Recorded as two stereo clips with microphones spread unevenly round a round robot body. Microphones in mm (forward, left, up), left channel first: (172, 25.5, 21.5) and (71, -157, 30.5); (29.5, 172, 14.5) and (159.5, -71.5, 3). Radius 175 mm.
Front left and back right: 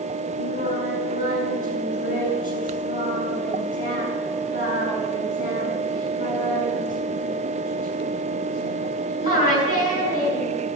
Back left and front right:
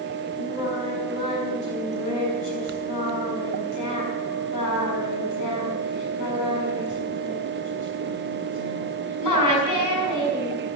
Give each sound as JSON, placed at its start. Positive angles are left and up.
{"t": 0.4, "sound": "singing", "azimuth_deg": 115, "distance_m": 6.5}